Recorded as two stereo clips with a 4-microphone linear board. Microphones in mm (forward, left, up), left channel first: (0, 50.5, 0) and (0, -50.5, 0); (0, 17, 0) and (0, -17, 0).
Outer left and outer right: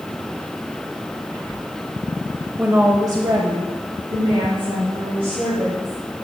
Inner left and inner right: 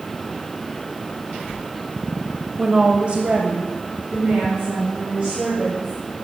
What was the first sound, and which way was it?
A woman speaking, 15° right (ahead or behind).